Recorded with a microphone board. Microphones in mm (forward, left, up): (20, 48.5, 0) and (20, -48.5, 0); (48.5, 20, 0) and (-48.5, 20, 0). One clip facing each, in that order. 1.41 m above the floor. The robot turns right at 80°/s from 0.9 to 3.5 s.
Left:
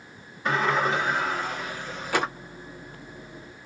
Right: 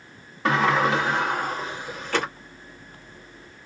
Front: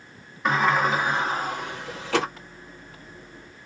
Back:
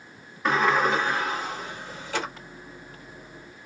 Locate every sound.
0.5 s a sliding door: 90° right, 0.9 m; by 2.3 s 20° left, 0.9 m